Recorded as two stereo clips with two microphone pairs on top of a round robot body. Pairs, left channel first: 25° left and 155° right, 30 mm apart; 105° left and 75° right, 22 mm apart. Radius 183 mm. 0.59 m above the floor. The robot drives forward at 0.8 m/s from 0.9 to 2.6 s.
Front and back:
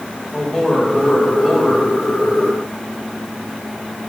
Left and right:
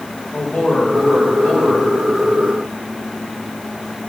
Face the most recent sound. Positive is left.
turn(degrees=125)